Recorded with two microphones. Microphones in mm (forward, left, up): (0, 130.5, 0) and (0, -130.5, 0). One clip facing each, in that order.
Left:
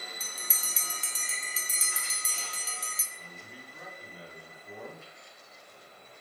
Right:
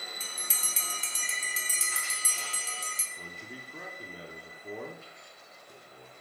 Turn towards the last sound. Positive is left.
turn(degrees=-65)  # may be behind; listen again after turning